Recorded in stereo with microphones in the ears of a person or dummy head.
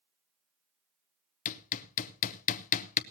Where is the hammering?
45° left (ahead or behind), 0.8 m.